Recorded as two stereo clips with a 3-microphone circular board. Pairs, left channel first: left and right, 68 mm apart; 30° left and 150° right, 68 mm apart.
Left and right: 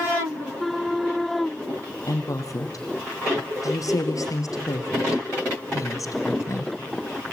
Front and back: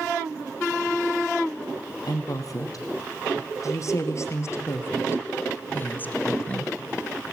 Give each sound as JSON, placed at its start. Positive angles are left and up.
{"t": 2.1, "sound": "a woman speaking", "azimuth_deg": 55, "distance_m": 3.5}